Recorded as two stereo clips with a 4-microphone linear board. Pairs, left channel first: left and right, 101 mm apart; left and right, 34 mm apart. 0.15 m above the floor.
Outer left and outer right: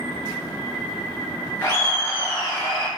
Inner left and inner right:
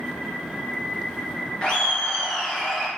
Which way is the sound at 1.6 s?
25° left (ahead or behind).